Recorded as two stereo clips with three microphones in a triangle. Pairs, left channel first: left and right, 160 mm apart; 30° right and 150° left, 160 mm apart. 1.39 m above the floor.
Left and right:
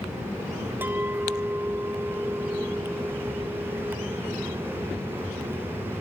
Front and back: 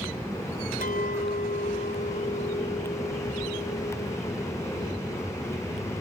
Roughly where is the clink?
Ahead.